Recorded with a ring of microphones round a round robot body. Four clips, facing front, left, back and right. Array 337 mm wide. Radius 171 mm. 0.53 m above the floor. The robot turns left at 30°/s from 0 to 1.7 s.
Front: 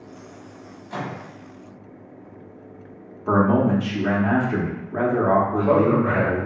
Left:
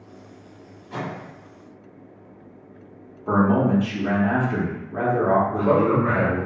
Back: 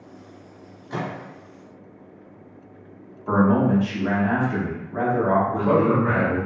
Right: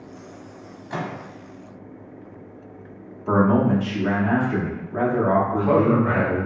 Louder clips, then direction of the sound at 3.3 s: Right 1 dB, front 1 dB; straight ahead.